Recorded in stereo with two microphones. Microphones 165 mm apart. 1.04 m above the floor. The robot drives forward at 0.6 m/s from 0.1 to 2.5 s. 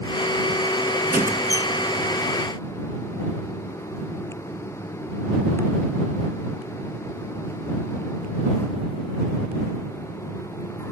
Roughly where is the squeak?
Right.